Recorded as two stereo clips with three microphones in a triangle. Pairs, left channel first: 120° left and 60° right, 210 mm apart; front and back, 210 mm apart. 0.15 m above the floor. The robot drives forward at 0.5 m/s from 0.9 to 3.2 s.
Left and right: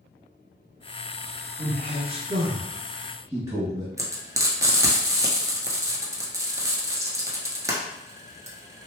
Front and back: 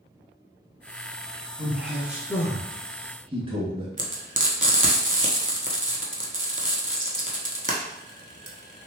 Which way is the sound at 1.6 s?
85° right.